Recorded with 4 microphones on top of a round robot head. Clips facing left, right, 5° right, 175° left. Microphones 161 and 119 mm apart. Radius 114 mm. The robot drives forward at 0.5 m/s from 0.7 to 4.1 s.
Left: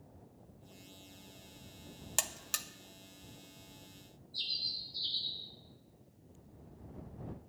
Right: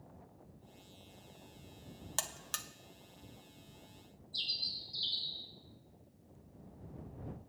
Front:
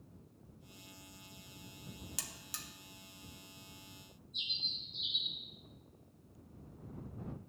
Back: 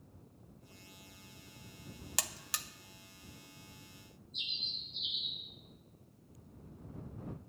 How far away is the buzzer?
About 0.7 m.